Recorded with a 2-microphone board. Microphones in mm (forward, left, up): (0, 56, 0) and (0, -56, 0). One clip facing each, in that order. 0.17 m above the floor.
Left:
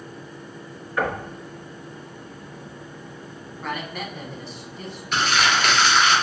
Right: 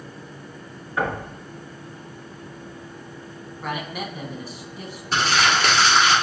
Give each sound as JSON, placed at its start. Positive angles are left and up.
{"t": 1.0, "sound": "knocking", "side_deg": -20, "distance_m": 1.6}
{"t": 3.6, "sound": "a man speaking", "side_deg": -10, "distance_m": 1.1}
{"t": 5.1, "sound": "crumpling", "side_deg": -35, "distance_m": 2.0}